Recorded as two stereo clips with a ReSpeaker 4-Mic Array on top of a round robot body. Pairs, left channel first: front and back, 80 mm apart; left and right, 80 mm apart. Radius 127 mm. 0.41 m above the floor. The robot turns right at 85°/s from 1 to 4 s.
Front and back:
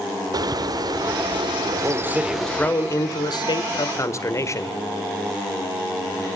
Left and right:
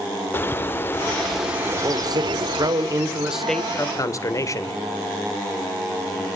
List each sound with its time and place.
0.3 s a bird: 150° left, 0.8 m; by 2.7 s 65° right, 0.8 m
1.7 s a man speaking: 145° right, 1.8 m; by 4.8 s 45° left, 1.8 m